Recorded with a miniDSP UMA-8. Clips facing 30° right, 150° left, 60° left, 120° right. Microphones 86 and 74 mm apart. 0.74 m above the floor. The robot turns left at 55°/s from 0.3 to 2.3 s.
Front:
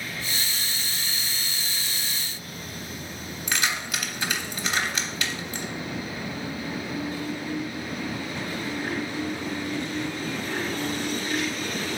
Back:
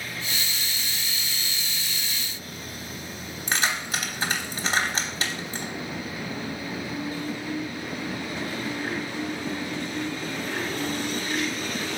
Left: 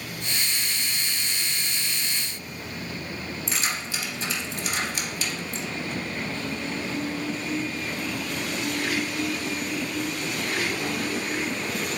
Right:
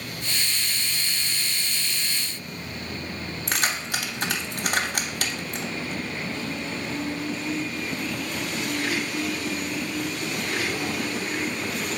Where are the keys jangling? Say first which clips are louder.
Back 2 dB, right 4 dB; 150° right, 0.7 m.